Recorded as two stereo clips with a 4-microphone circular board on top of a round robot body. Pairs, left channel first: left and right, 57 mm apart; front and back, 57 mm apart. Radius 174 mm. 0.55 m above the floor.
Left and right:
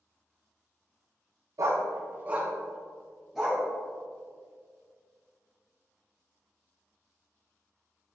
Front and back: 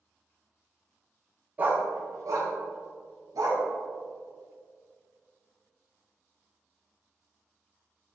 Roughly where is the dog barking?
Behind right.